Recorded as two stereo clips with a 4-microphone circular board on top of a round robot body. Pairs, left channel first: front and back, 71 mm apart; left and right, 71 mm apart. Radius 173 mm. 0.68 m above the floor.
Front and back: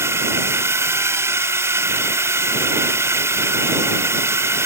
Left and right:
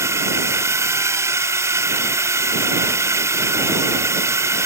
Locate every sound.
0.0 s a drone: 135° right